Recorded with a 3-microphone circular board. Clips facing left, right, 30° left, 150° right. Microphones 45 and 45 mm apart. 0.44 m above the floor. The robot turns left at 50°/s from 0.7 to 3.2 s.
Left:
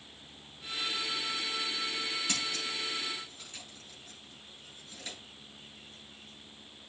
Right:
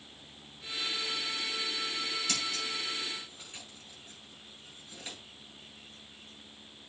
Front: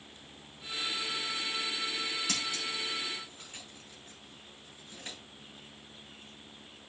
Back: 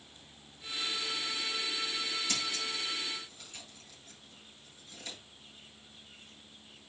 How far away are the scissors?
About 6 m.